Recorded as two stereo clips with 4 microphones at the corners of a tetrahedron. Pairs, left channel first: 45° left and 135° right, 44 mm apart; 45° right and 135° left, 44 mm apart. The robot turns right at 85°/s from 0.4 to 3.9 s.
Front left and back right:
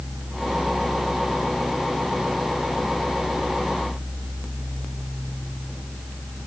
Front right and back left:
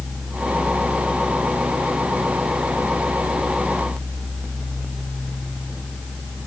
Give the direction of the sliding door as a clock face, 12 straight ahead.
I don't hear a sliding door.